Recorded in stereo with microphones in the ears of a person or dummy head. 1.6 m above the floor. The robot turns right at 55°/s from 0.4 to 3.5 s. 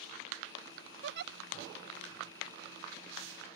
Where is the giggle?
70° right (ahead or behind); by 1.3 s 60° right (ahead or behind).